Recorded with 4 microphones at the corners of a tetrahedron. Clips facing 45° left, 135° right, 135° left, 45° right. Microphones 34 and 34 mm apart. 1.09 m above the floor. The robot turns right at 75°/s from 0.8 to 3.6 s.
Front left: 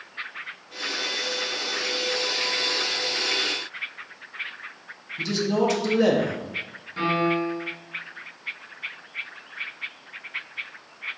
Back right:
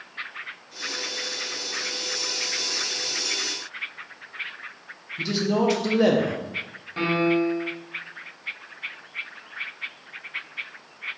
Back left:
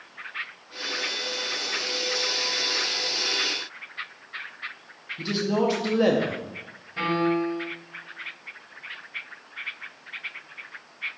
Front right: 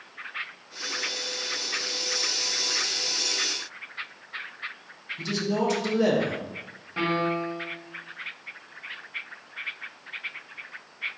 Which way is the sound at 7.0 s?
75° right.